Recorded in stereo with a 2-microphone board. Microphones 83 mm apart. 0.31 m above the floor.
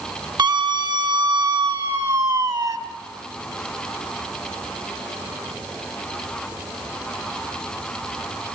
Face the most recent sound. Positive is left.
turn(degrees=-50)  # may be behind; listen again after turning